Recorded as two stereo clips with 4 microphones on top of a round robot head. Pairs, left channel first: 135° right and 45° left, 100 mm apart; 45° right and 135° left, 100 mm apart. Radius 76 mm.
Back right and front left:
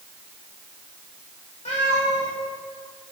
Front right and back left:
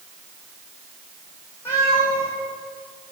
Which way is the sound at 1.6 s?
110° right.